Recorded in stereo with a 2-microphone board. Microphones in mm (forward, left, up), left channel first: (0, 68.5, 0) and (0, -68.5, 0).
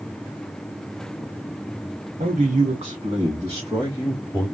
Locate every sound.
2.2 s a man speaking: 75° right (ahead or behind), 0.9 m; by 4.5 s 15° right (ahead or behind), 3.5 m